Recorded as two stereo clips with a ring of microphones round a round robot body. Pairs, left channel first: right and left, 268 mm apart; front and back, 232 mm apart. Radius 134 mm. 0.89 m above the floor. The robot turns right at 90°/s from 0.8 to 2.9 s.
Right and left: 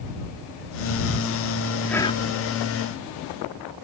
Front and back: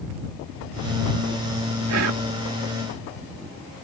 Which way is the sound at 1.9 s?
175° right.